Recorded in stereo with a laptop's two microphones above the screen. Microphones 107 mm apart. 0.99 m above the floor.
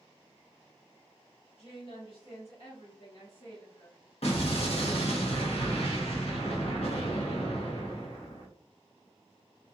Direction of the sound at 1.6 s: 60° left (ahead or behind).